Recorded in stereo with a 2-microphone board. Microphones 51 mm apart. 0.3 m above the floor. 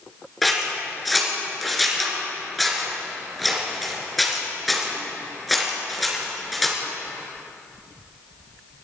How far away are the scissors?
About 3.5 m.